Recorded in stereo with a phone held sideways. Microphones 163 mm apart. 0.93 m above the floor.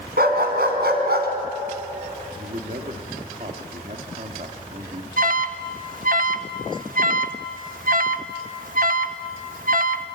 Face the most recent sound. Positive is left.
turn(degrees=-55)  # may be behind; listen again after turning